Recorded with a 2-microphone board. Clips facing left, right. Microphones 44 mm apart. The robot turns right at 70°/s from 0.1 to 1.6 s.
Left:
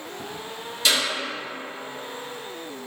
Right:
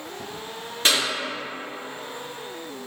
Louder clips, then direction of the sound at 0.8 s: Right 1 dB; 35° right (ahead or behind).